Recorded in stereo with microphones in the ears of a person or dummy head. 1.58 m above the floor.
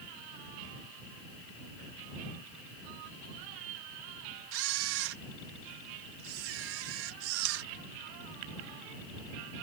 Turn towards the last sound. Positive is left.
turn(degrees=-85)